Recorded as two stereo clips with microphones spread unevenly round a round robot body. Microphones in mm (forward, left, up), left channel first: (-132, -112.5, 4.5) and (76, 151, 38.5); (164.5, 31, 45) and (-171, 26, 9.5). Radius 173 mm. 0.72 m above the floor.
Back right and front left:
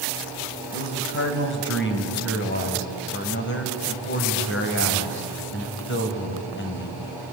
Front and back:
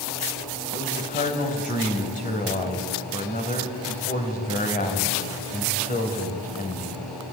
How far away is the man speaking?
About 3.5 m.